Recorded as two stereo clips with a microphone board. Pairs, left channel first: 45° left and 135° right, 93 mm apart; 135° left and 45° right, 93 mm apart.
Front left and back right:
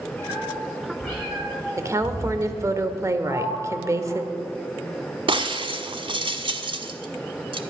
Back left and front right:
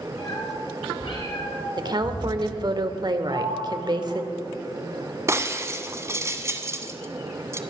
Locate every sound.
0.2 s a cat meowing: 120° left, 8.5 m; by 2.8 s 140° left, 10.5 m
1.8 s a woman speaking: 80° right, 1.4 m
3.2 s a sliding door: 65° right, 7.5 m
5.3 s breaking glass: 105° right, 1.0 m